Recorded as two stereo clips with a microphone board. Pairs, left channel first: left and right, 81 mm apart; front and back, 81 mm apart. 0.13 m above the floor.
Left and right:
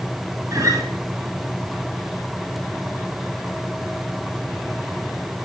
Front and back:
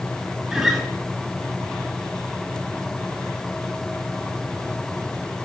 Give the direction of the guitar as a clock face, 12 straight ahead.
3 o'clock.